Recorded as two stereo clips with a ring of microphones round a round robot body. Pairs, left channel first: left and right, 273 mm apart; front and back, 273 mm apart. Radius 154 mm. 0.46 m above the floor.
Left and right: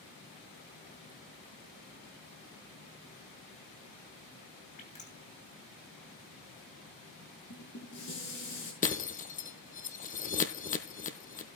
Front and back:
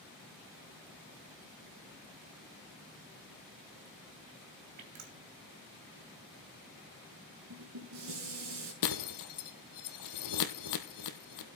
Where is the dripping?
155° left, 2.5 m.